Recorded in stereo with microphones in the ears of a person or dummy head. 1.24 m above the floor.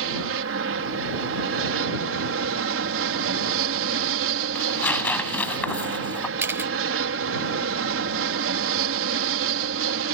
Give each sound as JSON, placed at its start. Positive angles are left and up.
{"t": 0.0, "sound": "an aircraft", "side_deg": -60}
{"t": 4.5, "sound": "tearing paper", "side_deg": 10}
{"t": 6.4, "sound": "a camera shutter", "side_deg": -10}